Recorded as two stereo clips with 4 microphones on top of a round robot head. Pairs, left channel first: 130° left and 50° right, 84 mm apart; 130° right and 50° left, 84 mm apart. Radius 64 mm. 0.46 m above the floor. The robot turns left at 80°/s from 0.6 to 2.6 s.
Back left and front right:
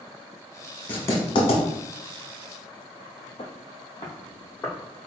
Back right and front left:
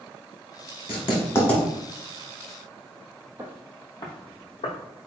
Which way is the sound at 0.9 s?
155° right.